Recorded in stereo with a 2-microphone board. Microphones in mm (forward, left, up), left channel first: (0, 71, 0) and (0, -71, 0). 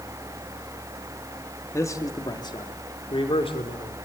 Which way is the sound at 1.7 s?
20° left (ahead or behind).